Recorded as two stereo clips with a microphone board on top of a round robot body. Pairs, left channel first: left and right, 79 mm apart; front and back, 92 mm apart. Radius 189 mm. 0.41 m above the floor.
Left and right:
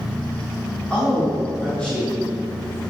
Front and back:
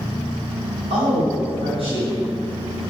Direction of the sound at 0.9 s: 170° left.